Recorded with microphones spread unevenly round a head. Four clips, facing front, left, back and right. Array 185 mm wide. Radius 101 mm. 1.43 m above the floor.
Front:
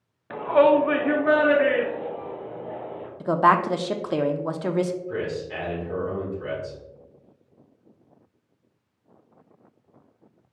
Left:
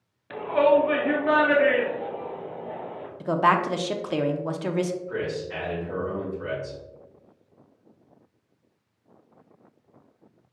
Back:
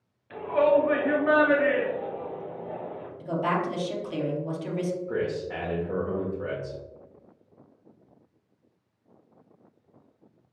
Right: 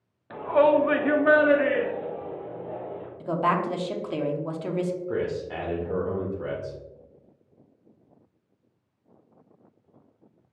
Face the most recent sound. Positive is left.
turn(degrees=-120)